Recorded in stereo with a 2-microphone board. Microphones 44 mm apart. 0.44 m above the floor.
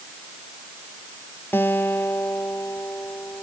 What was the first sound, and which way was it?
A guitar, 60° left (ahead or behind).